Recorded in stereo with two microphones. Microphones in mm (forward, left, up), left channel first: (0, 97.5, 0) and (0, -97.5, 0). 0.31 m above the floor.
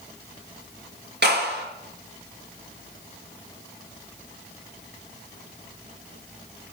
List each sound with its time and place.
1.2 s a clap: 60° right (ahead or behind), 5 m